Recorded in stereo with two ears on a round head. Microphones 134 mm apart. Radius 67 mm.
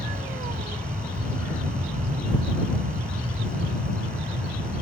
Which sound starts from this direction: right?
An aircraft, at 0.0 s.